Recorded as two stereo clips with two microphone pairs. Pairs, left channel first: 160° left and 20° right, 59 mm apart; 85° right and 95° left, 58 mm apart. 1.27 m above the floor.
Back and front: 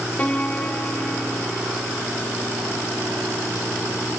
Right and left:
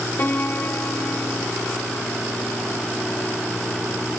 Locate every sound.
0.2 s a piano: 135° right